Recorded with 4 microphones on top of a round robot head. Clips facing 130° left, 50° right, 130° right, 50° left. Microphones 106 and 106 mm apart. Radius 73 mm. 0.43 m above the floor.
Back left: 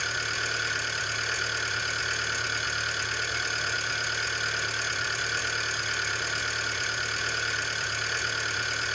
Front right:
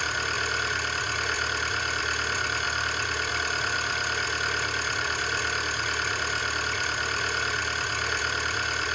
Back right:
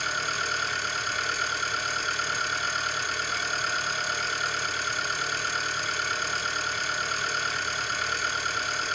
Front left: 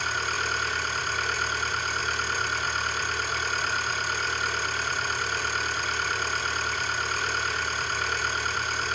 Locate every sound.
0.0 s an engine running: straight ahead, 2.5 m